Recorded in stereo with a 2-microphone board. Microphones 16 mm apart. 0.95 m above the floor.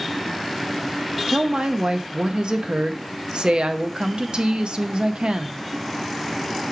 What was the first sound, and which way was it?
A woman speaking, 70° right (ahead or behind).